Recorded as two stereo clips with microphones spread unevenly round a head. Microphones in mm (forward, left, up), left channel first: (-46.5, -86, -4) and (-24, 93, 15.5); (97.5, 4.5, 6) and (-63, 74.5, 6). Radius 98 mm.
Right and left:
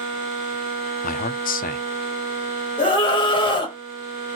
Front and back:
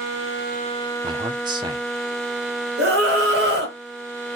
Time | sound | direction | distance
1.0 | a man speaking | 135° right | 0.7 m
2.8 | a scream | 160° right | 2.5 m